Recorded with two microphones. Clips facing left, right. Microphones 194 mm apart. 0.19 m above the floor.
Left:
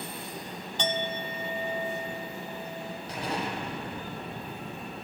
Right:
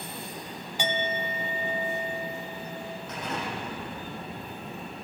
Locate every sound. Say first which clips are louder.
0.8 s a clink: right 2 dB; 10° right (ahead or behind), 0.8 m
3.1 s an explosion: left 2 dB; 35° left (ahead or behind), 5.5 m